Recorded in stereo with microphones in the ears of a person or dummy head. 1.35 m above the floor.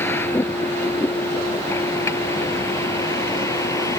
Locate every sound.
0.0 s a vehicle: 15° left (ahead or behind); by 4.0 s 20° left (ahead or behind)